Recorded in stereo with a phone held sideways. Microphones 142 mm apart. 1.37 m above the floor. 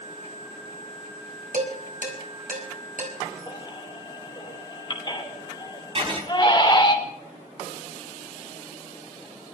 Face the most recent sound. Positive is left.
turn(degrees=-40)  # may be behind; listen again after turning